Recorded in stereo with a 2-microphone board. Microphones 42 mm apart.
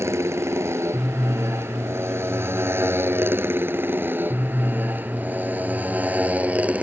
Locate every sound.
0.0 s a motorcycle: 85° right; by 6.8 s 35° right (ahead or behind)